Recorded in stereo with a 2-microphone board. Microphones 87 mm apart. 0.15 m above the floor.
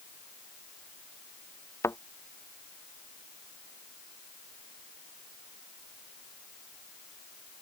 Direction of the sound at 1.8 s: 30° left (ahead or behind).